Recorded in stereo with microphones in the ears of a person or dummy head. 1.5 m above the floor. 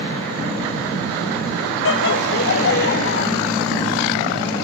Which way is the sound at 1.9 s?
65° left (ahead or behind).